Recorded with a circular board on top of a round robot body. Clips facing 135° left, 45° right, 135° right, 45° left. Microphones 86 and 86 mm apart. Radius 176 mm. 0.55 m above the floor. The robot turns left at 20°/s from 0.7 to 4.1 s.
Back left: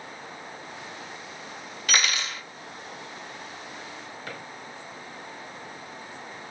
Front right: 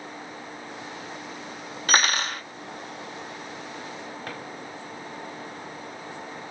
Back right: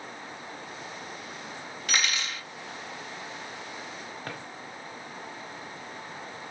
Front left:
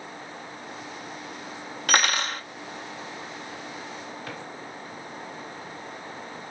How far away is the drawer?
About 1.5 m.